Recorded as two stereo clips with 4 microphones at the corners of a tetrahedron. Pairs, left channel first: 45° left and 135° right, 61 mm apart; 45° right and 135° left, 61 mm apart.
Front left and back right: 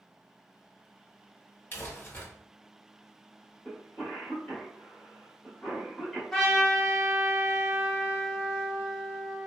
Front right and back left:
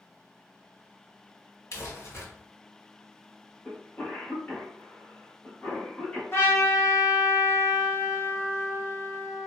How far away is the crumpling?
About 1.5 m.